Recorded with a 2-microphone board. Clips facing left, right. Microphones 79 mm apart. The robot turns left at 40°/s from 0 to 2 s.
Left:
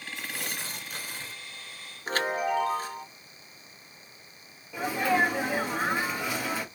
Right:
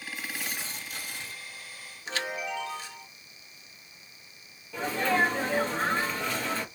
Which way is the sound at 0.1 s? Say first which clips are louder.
Left 1 dB; 85° left.